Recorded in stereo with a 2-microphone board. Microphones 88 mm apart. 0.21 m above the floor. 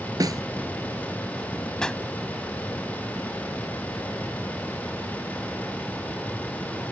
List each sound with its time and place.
0.2 s a snare drum: 50° right (ahead or behind)
1.8 s a pop: 10° left (ahead or behind)